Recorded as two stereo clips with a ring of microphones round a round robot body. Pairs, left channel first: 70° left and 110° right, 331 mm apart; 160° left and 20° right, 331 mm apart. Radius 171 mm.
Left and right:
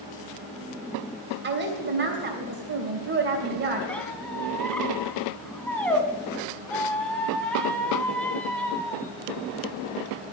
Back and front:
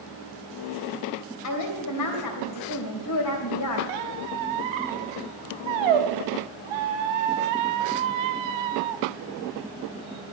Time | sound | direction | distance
1.4 | a woman speaking | 170° right | 3 m
3.9 | a squeak | 20° right | 1.0 m